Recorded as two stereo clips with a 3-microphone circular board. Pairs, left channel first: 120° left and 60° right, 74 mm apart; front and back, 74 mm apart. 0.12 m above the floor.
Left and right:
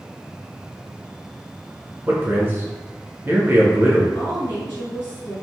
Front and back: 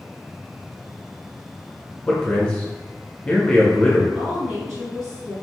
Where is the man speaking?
50° right, 1.1 m.